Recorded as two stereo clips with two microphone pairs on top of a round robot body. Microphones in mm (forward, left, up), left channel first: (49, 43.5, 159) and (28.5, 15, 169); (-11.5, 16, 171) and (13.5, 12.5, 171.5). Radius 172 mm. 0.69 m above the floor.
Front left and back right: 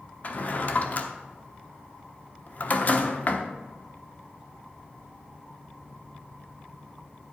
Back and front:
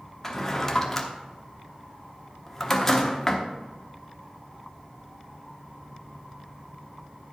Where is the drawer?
100° left, 0.9 m.